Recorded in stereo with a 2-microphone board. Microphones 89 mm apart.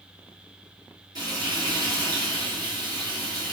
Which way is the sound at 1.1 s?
50° right (ahead or behind).